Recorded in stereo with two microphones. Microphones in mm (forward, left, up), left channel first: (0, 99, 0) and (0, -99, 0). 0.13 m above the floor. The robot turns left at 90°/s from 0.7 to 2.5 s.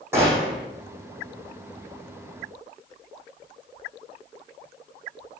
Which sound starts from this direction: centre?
A gunshot, at 0.1 s.